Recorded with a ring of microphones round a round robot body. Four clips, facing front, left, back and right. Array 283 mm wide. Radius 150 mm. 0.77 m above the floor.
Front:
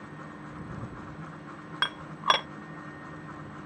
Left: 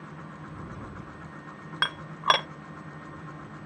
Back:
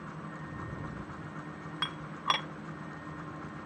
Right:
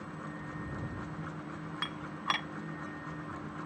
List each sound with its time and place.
1.8 s dishes clattering: 60° left